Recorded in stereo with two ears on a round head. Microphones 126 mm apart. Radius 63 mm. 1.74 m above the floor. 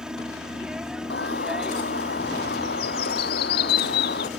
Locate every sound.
0.0 s a helicopter: 5° right (ahead or behind)
1.1 s a bird: 80° left